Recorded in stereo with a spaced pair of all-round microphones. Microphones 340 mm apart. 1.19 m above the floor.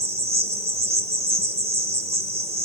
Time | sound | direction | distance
0.0 | an insect | 20° right (ahead or behind) | 0.8 m